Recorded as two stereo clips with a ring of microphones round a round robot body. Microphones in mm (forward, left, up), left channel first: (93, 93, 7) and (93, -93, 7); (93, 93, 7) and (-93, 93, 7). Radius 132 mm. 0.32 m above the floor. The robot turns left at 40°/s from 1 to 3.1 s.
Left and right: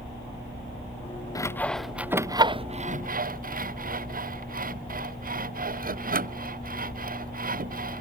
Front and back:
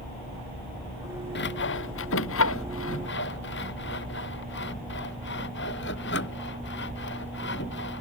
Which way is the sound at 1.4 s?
20° left.